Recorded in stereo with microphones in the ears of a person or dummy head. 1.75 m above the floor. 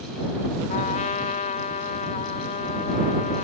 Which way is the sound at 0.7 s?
40° left (ahead or behind).